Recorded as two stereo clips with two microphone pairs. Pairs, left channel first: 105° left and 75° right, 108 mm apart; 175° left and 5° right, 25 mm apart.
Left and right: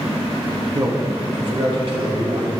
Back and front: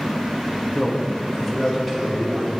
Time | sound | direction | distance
0.7 | a man speaking | 115° right | 1.1 m